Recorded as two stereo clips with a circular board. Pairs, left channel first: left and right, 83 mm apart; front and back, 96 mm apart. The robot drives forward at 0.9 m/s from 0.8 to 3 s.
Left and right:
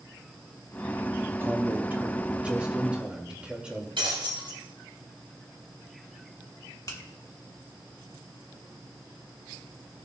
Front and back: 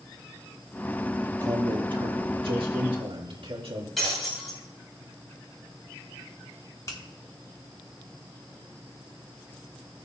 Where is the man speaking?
145° right, 0.9 m; by 3.9 s 170° right, 2 m.